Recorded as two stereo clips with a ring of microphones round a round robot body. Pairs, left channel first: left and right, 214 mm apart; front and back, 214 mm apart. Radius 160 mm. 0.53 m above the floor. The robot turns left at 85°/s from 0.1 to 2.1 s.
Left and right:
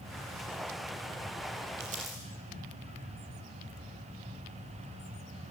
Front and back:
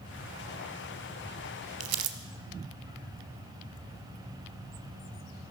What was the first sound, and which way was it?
Crumpling, 145° right.